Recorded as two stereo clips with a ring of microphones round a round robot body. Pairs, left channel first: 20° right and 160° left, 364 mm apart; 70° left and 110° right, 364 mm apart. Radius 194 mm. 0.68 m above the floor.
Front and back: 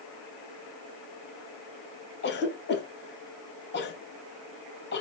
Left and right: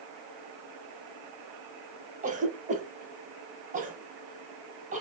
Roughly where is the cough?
Ahead right.